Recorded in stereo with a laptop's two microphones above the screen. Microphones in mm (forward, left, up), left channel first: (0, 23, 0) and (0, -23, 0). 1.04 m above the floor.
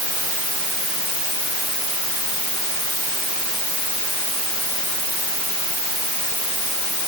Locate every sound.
Only background noise.